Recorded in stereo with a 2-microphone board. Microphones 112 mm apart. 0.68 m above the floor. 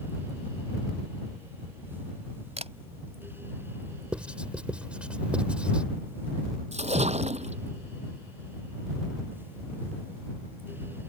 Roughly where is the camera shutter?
Right.